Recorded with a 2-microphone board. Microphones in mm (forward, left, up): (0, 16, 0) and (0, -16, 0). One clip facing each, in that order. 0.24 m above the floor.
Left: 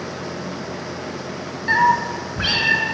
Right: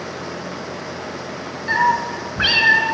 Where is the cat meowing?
10° left (ahead or behind), 0.9 m; by 3.0 s 45° right (ahead or behind), 1.9 m.